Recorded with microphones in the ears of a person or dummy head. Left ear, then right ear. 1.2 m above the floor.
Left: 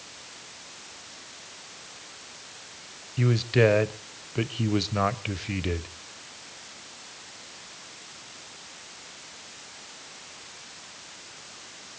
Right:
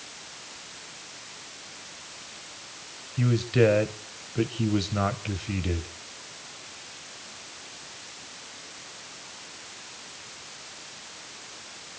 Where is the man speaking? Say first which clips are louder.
Left 1 dB; 25° left (ahead or behind), 0.8 m.